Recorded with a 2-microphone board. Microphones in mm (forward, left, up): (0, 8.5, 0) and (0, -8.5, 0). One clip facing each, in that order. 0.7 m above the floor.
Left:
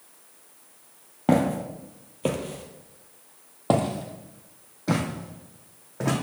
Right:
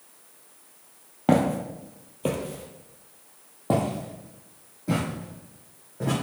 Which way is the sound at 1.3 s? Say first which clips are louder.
Even; 5° right (ahead or behind).